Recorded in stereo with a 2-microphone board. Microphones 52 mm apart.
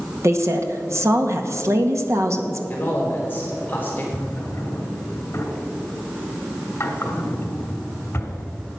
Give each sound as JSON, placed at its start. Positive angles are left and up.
{"t": 0.2, "sound": "a woman speaking", "side_deg": -70, "distance_m": 1.6}
{"t": 2.7, "sound": "a man speaking", "side_deg": 35, "distance_m": 4.0}
{"t": 4.1, "sound": "a drawer", "side_deg": 50, "distance_m": 3.0}